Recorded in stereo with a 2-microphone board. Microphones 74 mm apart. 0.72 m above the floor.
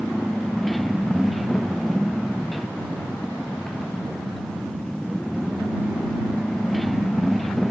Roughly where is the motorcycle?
Centre.